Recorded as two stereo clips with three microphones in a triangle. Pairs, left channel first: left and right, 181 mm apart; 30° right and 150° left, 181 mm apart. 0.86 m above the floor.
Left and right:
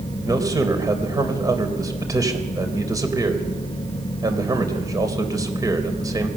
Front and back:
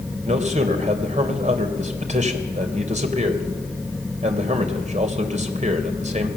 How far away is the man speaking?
About 3 m.